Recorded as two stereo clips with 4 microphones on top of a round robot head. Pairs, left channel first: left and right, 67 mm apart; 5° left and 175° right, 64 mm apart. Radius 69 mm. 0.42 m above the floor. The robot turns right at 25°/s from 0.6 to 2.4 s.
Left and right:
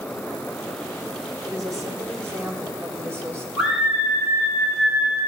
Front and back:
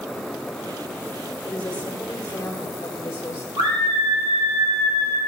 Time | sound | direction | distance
1.5 | a woman speaking | 60° right | 2 m
3.6 | a scream | 175° right | 4.5 m